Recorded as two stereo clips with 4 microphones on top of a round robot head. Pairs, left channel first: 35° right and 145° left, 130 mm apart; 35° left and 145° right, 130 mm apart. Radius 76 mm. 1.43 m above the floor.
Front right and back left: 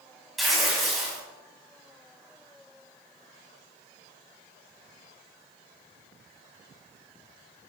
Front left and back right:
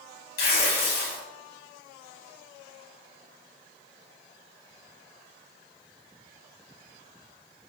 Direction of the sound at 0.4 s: 55° left.